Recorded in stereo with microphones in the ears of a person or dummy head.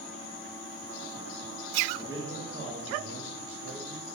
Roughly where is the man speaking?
Centre.